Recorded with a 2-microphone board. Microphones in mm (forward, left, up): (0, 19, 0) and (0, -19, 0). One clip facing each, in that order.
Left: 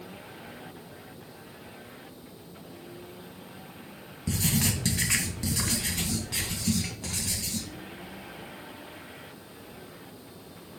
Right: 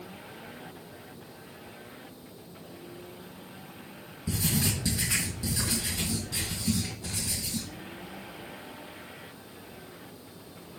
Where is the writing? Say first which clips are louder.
Left 1 dB; 70° left (ahead or behind), 2.5 m.